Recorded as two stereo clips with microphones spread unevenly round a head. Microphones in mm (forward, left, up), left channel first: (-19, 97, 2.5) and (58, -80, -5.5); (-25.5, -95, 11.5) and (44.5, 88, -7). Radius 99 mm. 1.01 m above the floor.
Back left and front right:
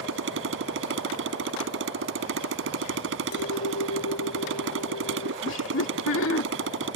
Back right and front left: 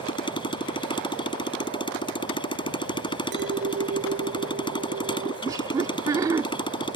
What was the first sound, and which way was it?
A motorcycle, 45° right.